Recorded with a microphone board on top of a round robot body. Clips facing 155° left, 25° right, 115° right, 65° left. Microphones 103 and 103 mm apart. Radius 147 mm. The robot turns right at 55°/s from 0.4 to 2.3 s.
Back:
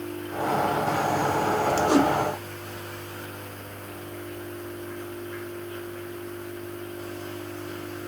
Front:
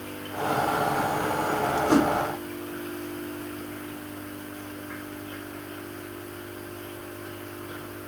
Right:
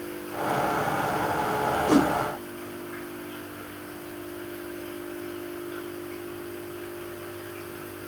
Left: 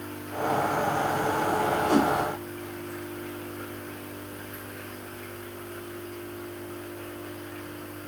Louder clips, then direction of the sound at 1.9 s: Even, right 3 dB; 125° right.